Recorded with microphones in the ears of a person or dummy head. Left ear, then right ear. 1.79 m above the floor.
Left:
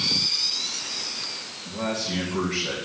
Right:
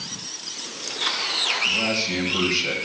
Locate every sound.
1.6 s a man speaking: 80° right, 3.5 m